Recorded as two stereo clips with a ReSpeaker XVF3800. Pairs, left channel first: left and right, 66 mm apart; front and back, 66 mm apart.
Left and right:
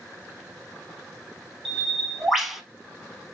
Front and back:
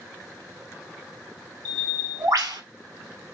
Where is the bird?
175° right, 0.7 m.